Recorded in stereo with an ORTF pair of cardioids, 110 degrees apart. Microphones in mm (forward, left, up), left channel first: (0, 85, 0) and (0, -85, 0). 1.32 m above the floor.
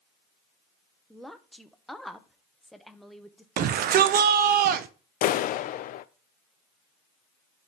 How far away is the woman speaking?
About 0.9 m.